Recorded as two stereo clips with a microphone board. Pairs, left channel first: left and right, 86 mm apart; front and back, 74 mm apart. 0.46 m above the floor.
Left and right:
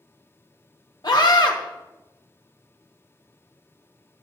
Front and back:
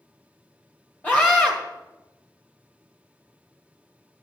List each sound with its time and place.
1.0 s a scream: 65° left, 1.6 m